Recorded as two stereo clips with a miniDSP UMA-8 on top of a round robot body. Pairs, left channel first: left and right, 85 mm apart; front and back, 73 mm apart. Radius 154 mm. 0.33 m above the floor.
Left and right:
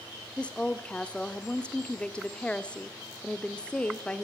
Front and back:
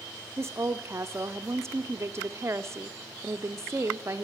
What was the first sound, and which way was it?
A woman speaking, 160° left.